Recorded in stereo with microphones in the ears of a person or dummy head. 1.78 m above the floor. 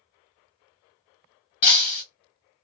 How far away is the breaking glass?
About 1.3 m.